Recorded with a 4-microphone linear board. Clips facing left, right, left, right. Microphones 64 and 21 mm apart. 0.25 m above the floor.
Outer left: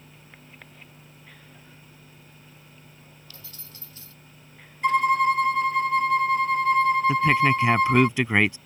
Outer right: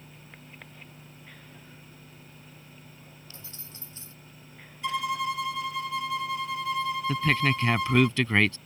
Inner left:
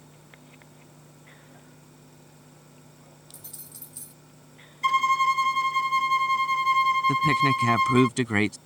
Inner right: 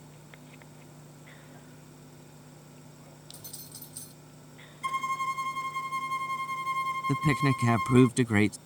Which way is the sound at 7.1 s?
20° left (ahead or behind).